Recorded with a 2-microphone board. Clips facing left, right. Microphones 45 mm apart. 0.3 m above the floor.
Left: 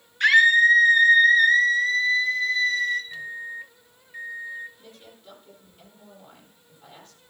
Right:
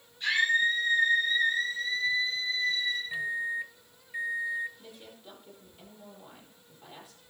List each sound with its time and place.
0.2 s a scream: 70° left (ahead or behind), 3.5 m
3.1 s a microwave: 20° right (ahead or behind), 0.8 m
4.8 s a woman speaking: 10° right (ahead or behind), 9 m